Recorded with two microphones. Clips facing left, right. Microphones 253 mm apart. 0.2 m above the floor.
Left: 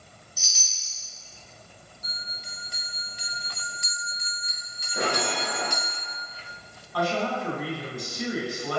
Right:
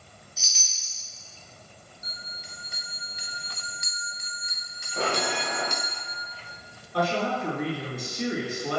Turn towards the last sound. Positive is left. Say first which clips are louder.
# even
turn(degrees=-20)  # may be behind; listen again after turning